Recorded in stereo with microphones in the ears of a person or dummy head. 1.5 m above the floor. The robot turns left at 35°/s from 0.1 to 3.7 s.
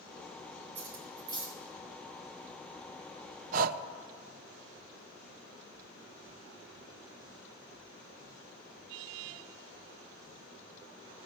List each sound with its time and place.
0.8 s cutlery clinking: 45° right (ahead or behind), 4 m; by 1.6 s 15° right (ahead or behind), 4 m
3.5 s breathing: 45° right (ahead or behind), 0.5 m; by 3.8 s 55° right (ahead or behind), 0.5 m